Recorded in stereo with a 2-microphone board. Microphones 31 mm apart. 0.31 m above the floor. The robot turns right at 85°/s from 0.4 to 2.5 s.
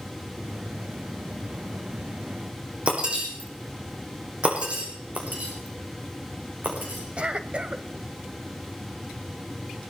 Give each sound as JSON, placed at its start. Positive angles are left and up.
{"t": 2.9, "sound": "breaking glass", "side_deg": -35, "distance_m": 7.0}
{"t": 5.2, "sound": "breaking glass", "side_deg": -55, "distance_m": 4.5}
{"t": 7.2, "sound": "a cough", "side_deg": -35, "distance_m": 1.3}